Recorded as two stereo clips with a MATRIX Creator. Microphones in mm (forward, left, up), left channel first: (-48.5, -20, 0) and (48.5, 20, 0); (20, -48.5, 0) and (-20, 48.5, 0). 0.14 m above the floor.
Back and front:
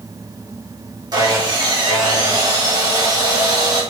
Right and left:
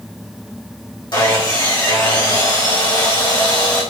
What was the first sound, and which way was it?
Sawing, 25° right.